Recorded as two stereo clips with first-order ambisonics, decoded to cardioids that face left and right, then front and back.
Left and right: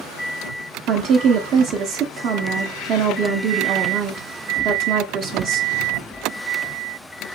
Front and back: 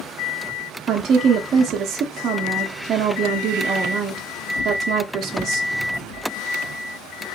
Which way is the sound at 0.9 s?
130° right.